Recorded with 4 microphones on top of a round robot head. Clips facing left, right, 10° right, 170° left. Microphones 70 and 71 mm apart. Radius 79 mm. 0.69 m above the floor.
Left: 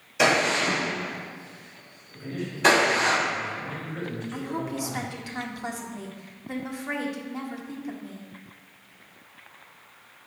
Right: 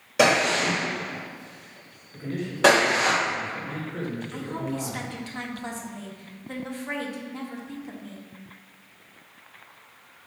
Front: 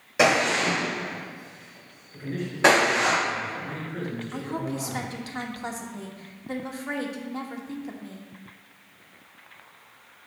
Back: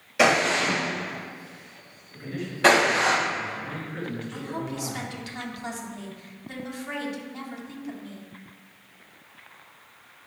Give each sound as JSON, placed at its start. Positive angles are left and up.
{"t": 0.2, "sound": "a gunshot", "azimuth_deg": -75, "distance_m": 3.0}
{"t": 2.1, "sound": "a man speaking", "azimuth_deg": -65, "distance_m": 3.0}
{"t": 4.3, "sound": "a woman speaking", "azimuth_deg": 15, "distance_m": 1.3}